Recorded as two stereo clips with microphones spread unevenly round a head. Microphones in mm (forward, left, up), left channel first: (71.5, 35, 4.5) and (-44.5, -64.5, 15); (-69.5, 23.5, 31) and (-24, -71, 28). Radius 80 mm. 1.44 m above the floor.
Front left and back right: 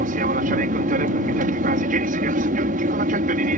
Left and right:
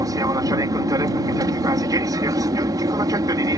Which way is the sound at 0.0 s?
115° right.